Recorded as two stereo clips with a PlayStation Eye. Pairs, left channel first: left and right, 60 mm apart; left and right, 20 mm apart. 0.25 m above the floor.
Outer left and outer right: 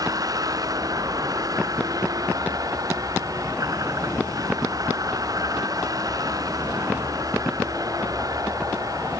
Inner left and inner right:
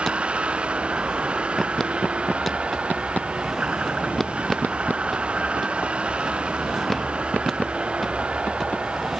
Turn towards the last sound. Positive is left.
turn(degrees=-85)